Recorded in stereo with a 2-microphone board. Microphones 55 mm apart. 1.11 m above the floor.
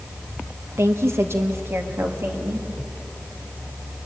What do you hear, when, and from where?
0.8 s a woman speaking: 60° right (ahead or behind), 1.0 m; by 2.7 s 45° right (ahead or behind), 2.5 m